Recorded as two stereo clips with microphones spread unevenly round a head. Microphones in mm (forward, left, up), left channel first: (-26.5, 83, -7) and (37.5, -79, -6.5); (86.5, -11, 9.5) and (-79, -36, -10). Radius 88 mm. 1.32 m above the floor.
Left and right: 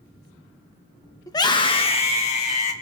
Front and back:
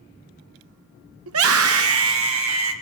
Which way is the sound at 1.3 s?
175° right.